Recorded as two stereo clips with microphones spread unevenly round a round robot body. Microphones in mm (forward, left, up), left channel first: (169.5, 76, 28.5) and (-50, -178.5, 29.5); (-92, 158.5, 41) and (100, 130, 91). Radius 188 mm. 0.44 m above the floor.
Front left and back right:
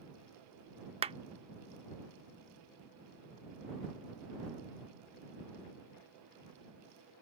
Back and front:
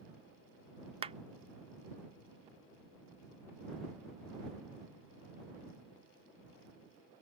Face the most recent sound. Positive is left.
turn(degrees=-70)